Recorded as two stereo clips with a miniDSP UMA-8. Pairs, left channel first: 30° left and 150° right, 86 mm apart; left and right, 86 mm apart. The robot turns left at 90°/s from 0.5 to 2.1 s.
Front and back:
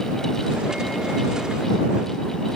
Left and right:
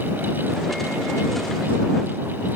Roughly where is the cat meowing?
No cat meowing in this recording.